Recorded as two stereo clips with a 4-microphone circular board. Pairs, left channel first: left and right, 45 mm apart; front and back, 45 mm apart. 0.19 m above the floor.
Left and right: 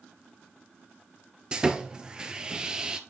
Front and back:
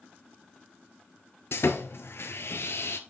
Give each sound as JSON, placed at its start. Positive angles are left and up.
{"t": 1.5, "sound": "sawing", "azimuth_deg": -20, "distance_m": 1.2}